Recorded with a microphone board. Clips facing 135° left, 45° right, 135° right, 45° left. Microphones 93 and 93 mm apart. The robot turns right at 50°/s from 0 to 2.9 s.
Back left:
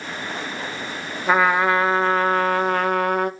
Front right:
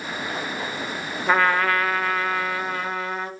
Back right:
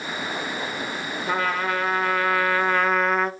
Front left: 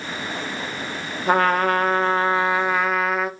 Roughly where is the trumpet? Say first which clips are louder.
Back left 2 dB, front left 7 dB; ahead left.